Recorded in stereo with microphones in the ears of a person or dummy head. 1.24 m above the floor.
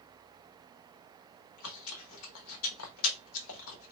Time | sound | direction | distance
1.4 | chewing | 75° left (ahead or behind) | 0.9 m